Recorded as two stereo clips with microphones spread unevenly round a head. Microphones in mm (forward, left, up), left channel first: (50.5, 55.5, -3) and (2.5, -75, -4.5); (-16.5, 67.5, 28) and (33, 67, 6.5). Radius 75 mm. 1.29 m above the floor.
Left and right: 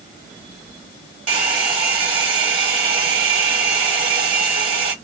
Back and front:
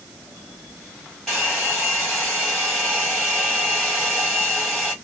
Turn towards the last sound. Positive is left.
turn(degrees=-130)